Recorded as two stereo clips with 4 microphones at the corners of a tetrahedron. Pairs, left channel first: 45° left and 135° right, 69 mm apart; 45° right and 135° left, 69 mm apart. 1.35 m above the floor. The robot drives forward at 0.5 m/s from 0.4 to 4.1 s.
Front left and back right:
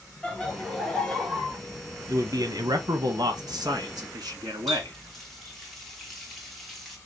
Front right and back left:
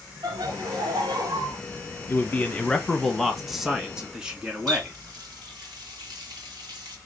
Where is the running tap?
130° left, 1.3 m.